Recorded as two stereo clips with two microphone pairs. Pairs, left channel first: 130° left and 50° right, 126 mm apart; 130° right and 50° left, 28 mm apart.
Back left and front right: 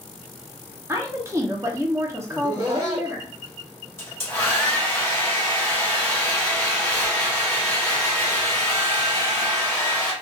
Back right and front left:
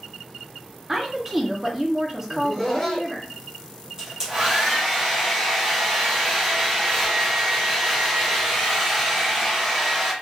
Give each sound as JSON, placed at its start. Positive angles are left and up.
{"t": 0.9, "sound": "a woman speaking", "azimuth_deg": 0, "distance_m": 0.7}
{"t": 2.3, "sound": "laughter", "azimuth_deg": -50, "distance_m": 1.4}
{"t": 4.0, "sound": "a hair dryer", "azimuth_deg": 75, "distance_m": 1.3}